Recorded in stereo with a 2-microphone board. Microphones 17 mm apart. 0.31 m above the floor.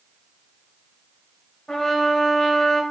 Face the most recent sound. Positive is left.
turn(degrees=45)  # may be behind; listen again after turning